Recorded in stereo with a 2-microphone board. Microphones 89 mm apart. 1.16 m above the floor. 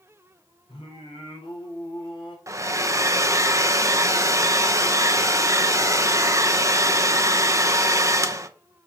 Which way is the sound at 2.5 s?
35° right (ahead or behind).